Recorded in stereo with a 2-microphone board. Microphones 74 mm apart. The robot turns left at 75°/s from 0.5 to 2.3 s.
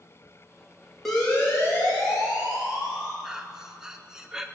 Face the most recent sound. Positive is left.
turn(degrees=-10)  # may be behind; listen again after turning